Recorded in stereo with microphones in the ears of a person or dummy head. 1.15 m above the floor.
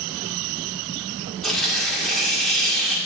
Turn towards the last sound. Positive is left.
turn(degrees=0)  # may be behind; listen again after turning